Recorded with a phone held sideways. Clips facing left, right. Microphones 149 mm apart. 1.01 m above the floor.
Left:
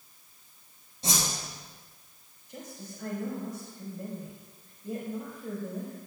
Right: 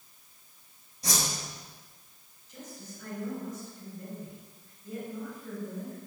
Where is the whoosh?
30° left (ahead or behind), 5.5 m.